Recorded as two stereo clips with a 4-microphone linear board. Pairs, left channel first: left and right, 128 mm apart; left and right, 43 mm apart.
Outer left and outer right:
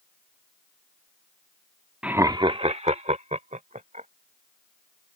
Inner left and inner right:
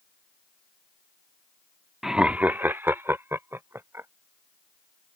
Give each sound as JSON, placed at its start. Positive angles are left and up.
{"t": 2.0, "sound": "laughter", "side_deg": -10}